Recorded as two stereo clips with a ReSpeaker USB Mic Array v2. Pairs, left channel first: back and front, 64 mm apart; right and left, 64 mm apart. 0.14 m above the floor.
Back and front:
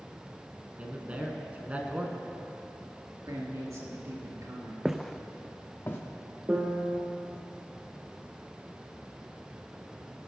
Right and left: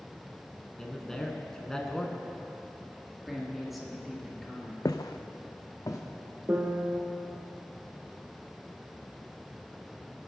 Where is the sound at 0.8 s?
25° right, 1.3 m.